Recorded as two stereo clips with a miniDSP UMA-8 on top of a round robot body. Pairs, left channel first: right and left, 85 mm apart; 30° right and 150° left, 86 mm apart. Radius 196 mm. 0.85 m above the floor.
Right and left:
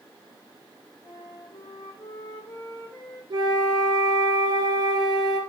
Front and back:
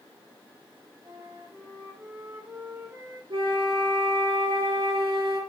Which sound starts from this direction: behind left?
A flute, at 3.3 s.